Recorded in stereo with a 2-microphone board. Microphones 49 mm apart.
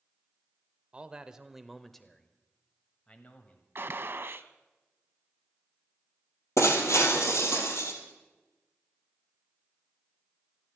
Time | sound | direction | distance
0.9 | a man speaking | 25° right (ahead or behind) | 0.9 m
3.8 | a gunshot | 50° right (ahead or behind) | 0.7 m
6.6 | breaking glass | 70° left (ahead or behind) | 3 m